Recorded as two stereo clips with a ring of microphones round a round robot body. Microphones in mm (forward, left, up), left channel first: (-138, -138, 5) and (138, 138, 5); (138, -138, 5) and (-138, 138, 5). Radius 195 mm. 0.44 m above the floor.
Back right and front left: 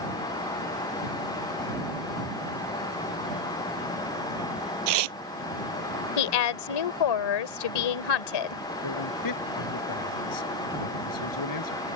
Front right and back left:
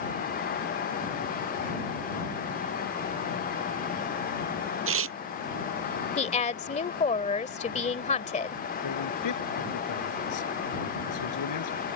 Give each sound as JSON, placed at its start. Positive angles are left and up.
{"t": 4.9, "sound": "tearing paper", "azimuth_deg": 75}
{"t": 6.2, "sound": "a woman speaking", "azimuth_deg": -115}
{"t": 8.8, "sound": "a man speaking", "azimuth_deg": -90}